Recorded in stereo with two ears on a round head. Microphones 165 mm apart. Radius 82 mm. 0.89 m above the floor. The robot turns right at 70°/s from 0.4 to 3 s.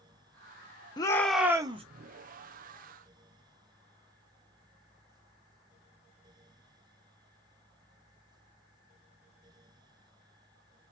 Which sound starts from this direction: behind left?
A shout, at 1.0 s.